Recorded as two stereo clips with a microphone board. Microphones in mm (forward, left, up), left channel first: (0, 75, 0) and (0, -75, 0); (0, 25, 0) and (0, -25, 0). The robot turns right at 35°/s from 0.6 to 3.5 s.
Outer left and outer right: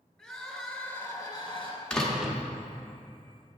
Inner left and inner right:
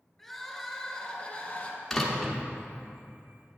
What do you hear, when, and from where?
0.2 s crying: straight ahead, 2 m; by 1.8 s 45° left, 2 m
1.9 s a door slam: 5° left (ahead or behind), 0.9 m; by 2.4 s 10° right (ahead or behind), 0.9 m